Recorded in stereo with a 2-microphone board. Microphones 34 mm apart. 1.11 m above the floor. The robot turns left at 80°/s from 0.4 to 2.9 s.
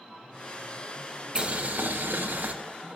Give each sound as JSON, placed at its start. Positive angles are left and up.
{"t": 1.4, "sound": "boiling", "azimuth_deg": -30, "distance_m": 1.0}